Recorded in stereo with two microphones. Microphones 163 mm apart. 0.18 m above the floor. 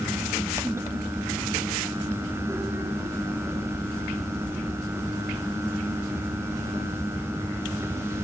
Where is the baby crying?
I don't hear a baby crying.